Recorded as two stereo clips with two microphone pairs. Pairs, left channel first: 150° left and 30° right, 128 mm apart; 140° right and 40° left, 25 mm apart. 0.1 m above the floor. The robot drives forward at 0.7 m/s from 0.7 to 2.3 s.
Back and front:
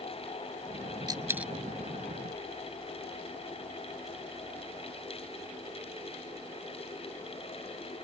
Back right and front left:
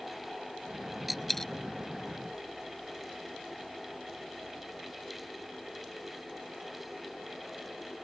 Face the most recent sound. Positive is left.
turn(degrees=-160)